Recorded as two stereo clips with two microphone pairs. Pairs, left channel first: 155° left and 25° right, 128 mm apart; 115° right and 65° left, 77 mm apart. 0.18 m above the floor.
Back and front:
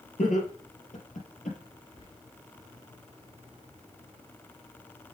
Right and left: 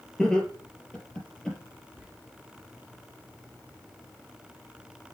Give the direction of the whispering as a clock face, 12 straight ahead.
7 o'clock.